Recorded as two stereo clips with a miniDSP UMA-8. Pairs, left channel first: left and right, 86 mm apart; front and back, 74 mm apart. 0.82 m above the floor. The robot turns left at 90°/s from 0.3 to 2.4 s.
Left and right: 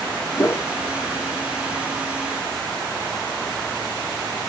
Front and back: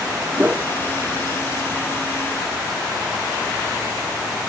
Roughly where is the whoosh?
Behind left.